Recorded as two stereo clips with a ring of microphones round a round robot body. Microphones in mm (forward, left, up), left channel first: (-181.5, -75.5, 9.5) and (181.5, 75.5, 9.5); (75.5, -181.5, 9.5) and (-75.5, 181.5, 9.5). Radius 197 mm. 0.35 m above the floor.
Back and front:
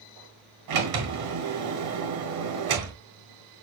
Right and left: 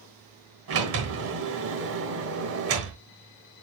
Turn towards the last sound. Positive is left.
turn(degrees=60)